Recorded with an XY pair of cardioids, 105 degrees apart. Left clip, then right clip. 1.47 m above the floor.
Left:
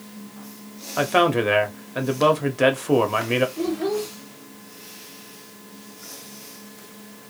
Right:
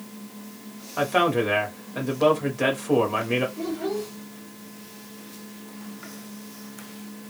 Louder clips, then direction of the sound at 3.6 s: Left 4 dB; 55° left.